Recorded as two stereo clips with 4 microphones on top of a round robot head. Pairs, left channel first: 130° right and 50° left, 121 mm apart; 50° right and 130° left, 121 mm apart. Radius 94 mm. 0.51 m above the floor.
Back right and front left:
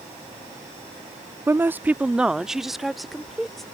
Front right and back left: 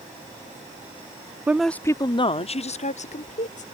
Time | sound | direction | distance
1.5 | a woman speaking | 80° left | ?